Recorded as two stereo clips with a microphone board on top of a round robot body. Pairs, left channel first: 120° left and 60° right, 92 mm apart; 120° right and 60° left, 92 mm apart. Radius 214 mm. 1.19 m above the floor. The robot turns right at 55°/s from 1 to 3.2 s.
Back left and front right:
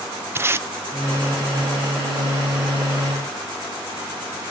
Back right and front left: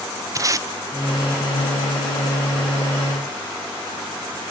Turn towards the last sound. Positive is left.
turn(degrees=125)